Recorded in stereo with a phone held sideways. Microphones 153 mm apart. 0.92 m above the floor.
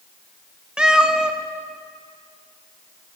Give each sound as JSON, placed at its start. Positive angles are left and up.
{"t": 0.8, "sound": "a cat meowing", "side_deg": -5, "distance_m": 0.6}